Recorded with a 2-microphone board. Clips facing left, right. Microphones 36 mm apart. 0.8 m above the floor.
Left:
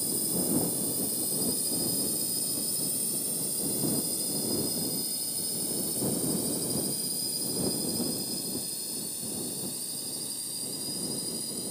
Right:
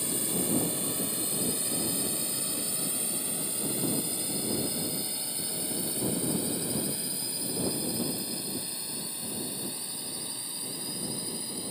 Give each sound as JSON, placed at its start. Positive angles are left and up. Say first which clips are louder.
{"t": 0.0, "sound": "a drone", "louder": "right 1 dB", "side_deg": -50}